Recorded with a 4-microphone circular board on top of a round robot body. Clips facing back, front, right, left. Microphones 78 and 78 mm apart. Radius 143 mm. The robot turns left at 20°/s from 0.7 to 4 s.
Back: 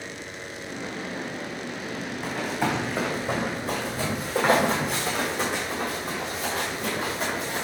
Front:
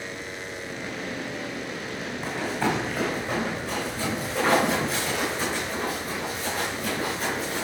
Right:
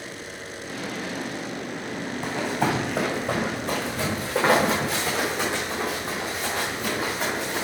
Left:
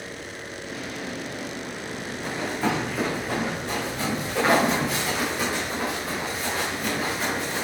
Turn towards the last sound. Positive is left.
turn(degrees=-160)